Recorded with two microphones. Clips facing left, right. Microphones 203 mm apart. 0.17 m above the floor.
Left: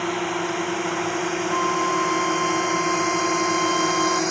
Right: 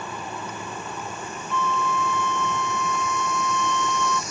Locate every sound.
0.0 s a drone: 85° left; by 4.3 s 75° left (ahead or behind)
1.5 s a flute: 20° left (ahead or behind)